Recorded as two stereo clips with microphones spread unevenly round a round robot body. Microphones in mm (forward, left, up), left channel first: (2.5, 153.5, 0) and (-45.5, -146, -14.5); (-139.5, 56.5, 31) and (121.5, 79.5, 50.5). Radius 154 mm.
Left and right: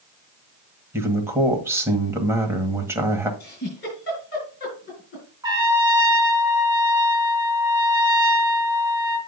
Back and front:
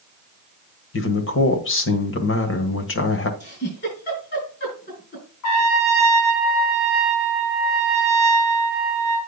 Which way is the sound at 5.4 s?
175° right.